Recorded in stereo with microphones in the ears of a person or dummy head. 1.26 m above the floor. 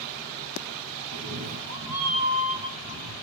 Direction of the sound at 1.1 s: 50° right (ahead or behind).